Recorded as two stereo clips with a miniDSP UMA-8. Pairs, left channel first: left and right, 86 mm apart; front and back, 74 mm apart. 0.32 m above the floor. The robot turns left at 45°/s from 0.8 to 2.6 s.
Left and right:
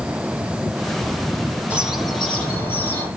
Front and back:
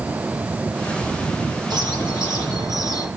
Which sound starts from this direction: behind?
A bird, at 1.7 s.